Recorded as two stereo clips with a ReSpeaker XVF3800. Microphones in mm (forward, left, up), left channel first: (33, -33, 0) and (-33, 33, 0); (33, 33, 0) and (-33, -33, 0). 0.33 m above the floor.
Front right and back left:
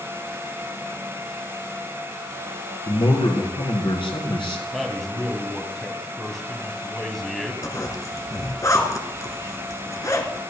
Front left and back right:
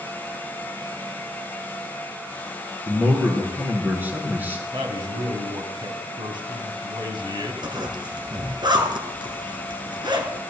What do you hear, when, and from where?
2.9 s a man speaking: 65° right, 5 m
4.7 s a man speaking: 135° right, 2.5 m
7.6 s a zipper: 100° right, 2.5 m